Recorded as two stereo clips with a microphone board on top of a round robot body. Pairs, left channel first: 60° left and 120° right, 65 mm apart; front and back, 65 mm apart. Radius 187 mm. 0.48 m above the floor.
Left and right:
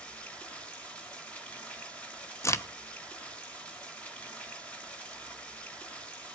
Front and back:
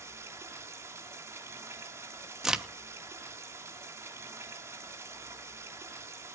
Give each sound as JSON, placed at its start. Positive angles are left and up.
{"t": 0.0, "sound": "running water", "azimuth_deg": 130, "distance_m": 3.0}
{"t": 2.4, "sound": "a crack", "azimuth_deg": 95, "distance_m": 1.2}